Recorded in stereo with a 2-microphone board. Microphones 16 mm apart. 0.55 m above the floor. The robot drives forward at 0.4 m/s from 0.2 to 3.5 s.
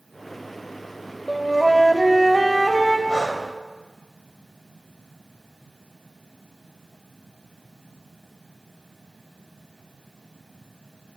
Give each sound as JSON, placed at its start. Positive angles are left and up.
{"t": 1.3, "sound": "a flute", "side_deg": 5, "distance_m": 1.1}
{"t": 3.1, "sound": "breathing", "side_deg": 50, "distance_m": 2.5}